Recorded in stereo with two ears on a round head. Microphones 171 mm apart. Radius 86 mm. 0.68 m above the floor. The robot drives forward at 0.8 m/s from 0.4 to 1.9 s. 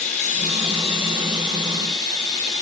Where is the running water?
40° left (ahead or behind), 1.4 m; by 2.6 s 20° left (ahead or behind), 2.5 m.